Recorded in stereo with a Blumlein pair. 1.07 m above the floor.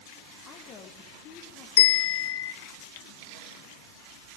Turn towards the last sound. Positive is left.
turn(degrees=55)